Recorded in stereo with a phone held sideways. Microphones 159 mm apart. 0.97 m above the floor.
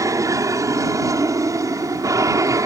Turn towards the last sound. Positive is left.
turn(degrees=-20)  # may be behind; listen again after turning